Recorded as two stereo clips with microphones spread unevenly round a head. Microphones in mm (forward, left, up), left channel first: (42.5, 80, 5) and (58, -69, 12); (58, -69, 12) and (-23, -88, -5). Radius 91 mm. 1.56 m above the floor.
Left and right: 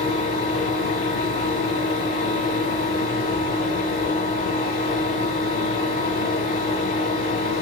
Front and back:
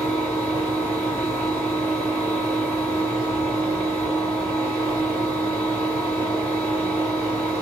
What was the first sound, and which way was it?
A fan, 90° left.